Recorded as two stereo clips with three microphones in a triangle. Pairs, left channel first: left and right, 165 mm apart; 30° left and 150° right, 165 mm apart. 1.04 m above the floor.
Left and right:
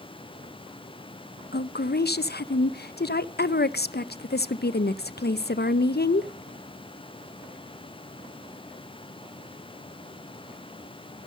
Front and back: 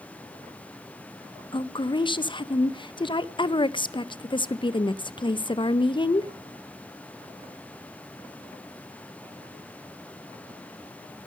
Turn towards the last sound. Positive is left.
turn(degrees=90)